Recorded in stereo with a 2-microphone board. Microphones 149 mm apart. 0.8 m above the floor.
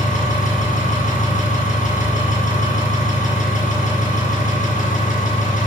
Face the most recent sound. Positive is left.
turn(degrees=60)  # may be behind; listen again after turning